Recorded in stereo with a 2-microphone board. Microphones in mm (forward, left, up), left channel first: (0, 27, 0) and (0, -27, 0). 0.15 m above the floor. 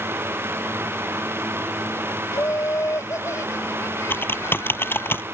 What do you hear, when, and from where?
2.3 s laughter: 65° left (ahead or behind); by 5.1 s 60° left (ahead or behind)
4.1 s typing on a keyboard: 40° left (ahead or behind)